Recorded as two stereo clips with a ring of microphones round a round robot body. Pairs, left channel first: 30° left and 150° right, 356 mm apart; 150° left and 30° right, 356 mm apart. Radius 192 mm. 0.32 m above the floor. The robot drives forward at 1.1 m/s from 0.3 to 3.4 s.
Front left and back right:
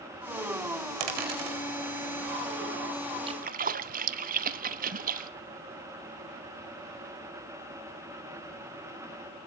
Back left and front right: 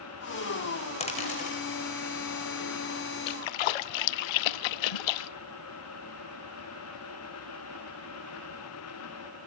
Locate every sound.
1.0 s a dropped coin: 135° right, 5 m; by 1.6 s 140° right, 5.5 m
3.3 s a splash: 130° left, 0.6 m; by 5.3 s 140° left, 0.7 m